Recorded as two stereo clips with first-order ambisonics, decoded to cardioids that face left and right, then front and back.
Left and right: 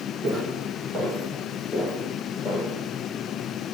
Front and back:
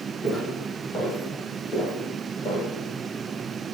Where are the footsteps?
70° right, 1.6 m; by 2.7 s 45° left, 2.5 m.